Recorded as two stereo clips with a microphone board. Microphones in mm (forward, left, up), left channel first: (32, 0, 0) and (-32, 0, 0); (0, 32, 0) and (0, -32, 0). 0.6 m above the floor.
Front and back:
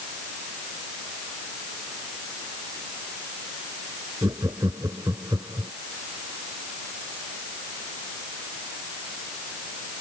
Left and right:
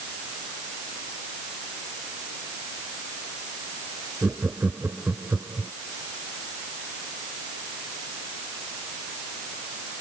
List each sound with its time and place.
4.2 s laughter: 155° right